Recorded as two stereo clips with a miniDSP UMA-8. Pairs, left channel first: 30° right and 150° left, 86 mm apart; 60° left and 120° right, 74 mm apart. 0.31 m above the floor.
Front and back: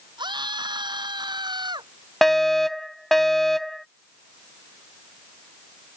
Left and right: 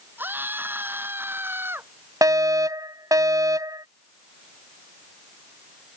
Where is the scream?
Straight behind.